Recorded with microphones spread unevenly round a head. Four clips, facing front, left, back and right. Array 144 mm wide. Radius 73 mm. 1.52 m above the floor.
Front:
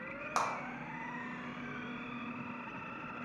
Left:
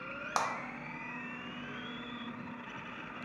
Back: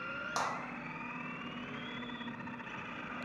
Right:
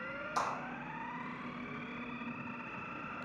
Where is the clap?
75° left, 1.1 m.